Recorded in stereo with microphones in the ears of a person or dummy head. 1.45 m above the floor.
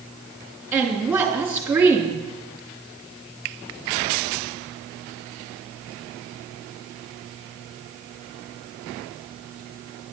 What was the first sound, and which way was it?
A woman speaking, 10° right (ahead or behind).